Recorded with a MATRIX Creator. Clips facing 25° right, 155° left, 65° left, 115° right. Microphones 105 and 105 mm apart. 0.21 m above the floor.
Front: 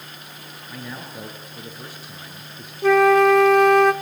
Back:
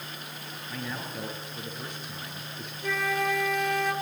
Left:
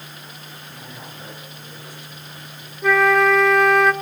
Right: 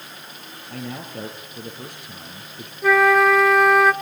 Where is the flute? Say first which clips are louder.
Front 15 dB, right 1 dB; 25° right, 0.7 m.